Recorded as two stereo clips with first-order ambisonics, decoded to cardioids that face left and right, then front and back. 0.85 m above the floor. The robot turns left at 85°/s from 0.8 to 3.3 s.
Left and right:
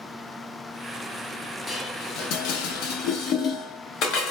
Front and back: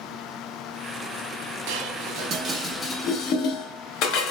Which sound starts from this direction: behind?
Dishes clattering, at 1.7 s.